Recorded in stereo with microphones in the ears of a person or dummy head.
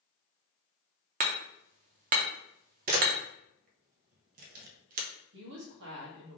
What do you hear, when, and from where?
1.2 s hammering: 45° right (ahead or behind), 0.8 m
2.9 s a camera shutter: 45° right (ahead or behind), 0.9 m
5.3 s a woman speaking: 60° right (ahead or behind), 1.6 m